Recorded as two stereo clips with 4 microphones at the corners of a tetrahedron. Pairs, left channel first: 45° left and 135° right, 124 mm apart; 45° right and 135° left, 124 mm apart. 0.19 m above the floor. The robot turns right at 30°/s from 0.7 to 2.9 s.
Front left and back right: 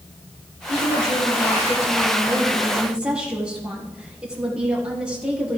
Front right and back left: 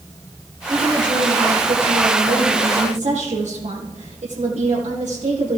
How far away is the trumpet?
No trumpet in this recording.